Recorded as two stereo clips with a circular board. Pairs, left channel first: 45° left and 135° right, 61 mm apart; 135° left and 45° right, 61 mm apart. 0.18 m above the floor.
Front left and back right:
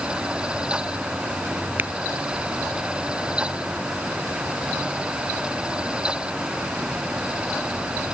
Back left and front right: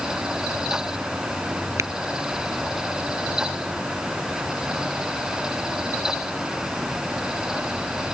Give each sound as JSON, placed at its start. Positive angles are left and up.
{"t": 1.8, "sound": "tapping", "azimuth_deg": -80}